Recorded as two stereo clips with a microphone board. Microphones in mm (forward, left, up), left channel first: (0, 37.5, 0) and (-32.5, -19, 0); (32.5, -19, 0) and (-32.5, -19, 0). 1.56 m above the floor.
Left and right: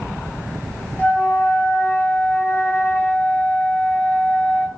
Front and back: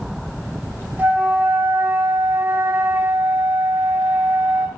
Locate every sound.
1.0 s a flute: 125° left, 0.5 m